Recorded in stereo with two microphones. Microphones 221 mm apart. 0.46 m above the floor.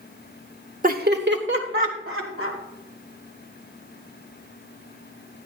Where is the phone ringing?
No phone ringing in this recording.